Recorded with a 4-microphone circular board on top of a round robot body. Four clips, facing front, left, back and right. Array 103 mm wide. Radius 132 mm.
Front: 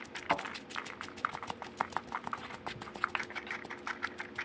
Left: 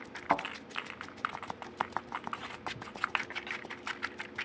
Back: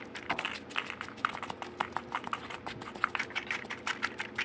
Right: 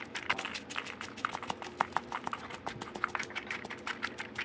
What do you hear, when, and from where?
0.3 s a thud: 75° left, 0.8 m